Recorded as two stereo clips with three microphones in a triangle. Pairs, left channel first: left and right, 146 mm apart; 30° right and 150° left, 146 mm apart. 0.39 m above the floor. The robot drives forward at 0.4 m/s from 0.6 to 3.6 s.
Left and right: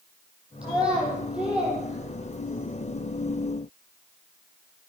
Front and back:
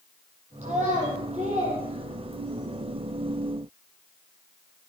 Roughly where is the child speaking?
Behind.